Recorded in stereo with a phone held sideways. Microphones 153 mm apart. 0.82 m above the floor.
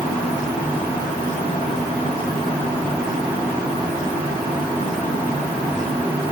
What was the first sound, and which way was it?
Only background noise.